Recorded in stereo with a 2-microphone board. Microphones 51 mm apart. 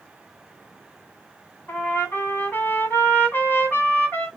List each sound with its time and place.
1.7 s a trumpet: 40° left (ahead or behind), 3 m